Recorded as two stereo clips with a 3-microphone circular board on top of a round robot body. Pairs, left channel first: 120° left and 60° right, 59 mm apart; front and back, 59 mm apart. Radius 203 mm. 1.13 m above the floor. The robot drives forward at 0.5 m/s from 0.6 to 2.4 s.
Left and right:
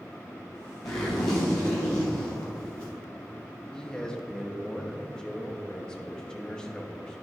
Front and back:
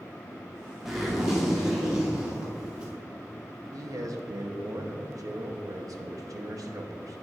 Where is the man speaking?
165° right, 0.9 m.